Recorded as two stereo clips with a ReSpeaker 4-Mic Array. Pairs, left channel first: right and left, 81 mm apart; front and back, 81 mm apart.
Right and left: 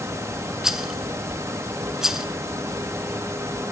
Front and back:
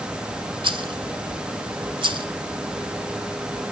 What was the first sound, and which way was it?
A rattle, 175° left.